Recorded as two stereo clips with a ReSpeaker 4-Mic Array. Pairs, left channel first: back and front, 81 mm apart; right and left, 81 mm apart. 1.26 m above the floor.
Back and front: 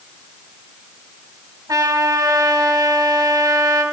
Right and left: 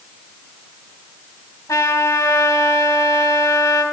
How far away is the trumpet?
About 3.5 m.